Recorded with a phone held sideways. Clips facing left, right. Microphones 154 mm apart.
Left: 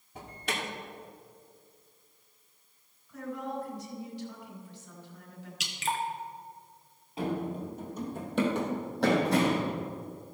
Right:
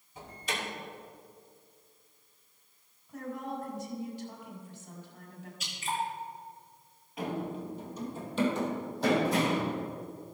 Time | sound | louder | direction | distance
0.1 | an alarm | left 2 dB | 65° left (ahead or behind) | 2 m
3.1 | a woman speaking | left 1 dB | 45° right (ahead or behind) | 3.5 m
5.6 | dripping | left 2 dB | 85° left | 1.2 m
7.2 | running footsteps | left 2 dB | 30° left (ahead or behind) | 1.8 m